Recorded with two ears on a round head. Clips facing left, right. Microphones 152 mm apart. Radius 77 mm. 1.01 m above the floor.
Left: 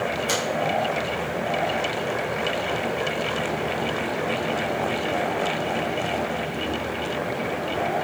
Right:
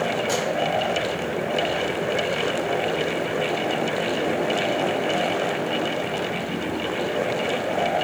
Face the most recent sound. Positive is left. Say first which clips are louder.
# right 2 dB
turn(degrees=35)  # may be behind; listen again after turning